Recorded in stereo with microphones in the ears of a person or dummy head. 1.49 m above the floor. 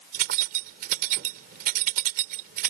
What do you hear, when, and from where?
0.1 s keys jangling: 50° right (ahead or behind)